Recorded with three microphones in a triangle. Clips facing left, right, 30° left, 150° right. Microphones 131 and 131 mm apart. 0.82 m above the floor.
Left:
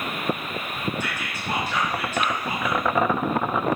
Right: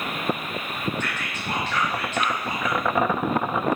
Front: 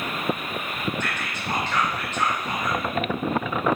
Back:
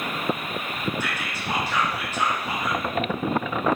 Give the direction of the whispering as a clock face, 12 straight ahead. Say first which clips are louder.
Even, even; 7 o'clock.